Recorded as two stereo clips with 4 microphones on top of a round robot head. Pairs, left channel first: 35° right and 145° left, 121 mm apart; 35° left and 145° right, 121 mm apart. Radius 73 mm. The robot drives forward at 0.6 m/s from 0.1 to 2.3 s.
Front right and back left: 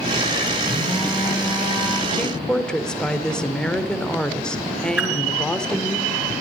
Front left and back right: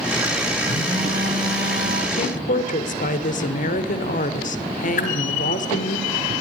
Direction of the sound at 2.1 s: 45° left.